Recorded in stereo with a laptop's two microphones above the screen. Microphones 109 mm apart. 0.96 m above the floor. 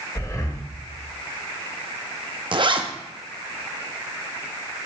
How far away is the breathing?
About 1.0 m.